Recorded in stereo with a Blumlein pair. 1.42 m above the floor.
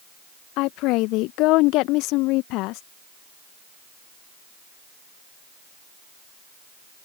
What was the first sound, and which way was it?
A woman speaking, 40° left.